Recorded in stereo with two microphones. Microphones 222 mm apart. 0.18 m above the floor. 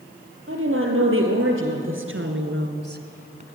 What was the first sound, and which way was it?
A woman speaking, 70° right (ahead or behind).